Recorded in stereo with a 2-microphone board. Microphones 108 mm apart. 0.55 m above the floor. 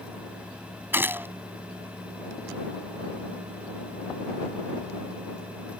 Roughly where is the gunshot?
Centre.